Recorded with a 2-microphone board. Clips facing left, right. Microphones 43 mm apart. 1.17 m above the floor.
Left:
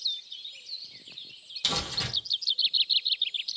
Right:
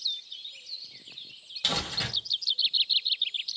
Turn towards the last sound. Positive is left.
turn(degrees=-20)  # may be behind; listen again after turning